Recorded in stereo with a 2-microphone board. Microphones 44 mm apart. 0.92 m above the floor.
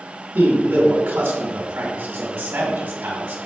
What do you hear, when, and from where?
0.3 s a man speaking: 60° right (ahead or behind), 1.9 m